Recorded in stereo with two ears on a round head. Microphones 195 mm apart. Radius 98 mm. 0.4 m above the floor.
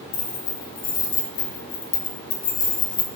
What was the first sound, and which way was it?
Keys jangling, 80° left.